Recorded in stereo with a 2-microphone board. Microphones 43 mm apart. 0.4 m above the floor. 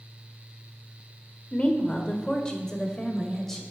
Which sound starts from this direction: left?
A woman speaking, at 1.5 s.